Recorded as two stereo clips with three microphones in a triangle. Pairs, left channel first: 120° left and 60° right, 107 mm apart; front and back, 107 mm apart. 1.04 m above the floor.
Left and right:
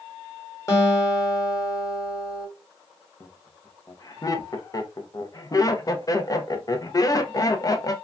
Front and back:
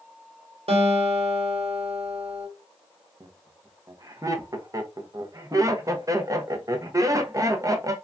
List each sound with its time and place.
0.7 s a guitar: straight behind, 1.3 m
3.2 s laughter: 150° left, 0.6 m